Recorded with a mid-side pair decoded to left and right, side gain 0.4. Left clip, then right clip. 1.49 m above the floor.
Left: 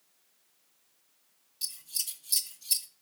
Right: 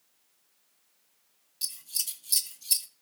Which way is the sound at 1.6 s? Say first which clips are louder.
Right 2 dB; 20° right.